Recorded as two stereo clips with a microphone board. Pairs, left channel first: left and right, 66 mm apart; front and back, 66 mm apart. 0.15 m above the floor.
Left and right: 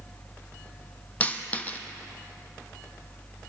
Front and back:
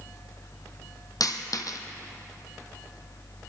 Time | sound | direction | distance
1.2 | a dropped coin | 25° left | 1.0 m